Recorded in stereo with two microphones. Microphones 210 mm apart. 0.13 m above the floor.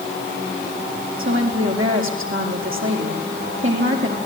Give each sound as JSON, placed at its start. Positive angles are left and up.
{"t": 1.2, "sound": "a woman speaking", "side_deg": -70, "distance_m": 6.5}